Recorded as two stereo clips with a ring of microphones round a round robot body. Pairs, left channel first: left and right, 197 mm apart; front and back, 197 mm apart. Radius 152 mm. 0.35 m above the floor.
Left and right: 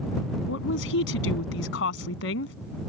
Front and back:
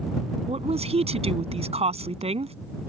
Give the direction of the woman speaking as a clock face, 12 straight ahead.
8 o'clock.